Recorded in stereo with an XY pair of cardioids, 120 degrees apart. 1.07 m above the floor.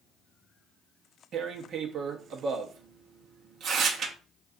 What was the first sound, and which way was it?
Tearing paper, 55° right.